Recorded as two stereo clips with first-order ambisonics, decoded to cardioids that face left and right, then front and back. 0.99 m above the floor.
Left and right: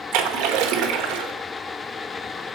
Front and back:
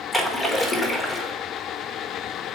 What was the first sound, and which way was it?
A splash, 85° right.